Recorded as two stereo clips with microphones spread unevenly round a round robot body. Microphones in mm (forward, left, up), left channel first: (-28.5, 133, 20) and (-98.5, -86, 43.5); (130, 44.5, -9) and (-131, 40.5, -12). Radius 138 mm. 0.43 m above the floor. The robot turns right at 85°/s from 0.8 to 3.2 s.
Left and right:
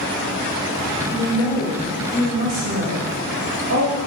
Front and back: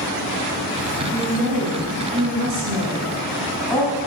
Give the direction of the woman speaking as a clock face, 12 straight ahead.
9 o'clock.